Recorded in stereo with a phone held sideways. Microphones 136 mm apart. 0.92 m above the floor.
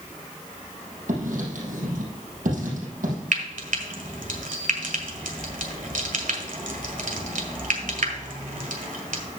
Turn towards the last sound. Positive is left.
turn(degrees=-75)  # may be behind; listen again after turning